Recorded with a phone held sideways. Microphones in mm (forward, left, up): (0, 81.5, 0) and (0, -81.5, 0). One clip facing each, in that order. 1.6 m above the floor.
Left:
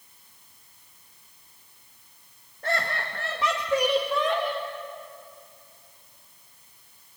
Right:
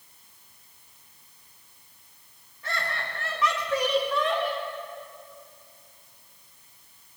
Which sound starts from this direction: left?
Laughter, at 2.6 s.